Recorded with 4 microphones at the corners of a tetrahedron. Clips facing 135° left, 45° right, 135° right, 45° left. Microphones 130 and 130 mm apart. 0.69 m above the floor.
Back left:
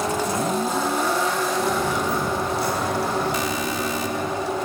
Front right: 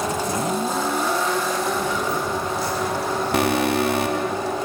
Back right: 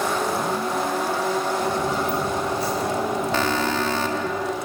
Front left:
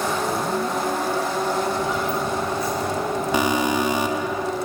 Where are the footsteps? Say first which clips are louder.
Back left 1 dB, even; 175° left, 8 m; by 4.3 s 150° left, 9 m.